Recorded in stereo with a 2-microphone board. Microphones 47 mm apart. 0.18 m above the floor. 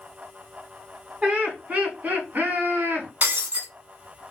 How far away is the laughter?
About 1.7 m.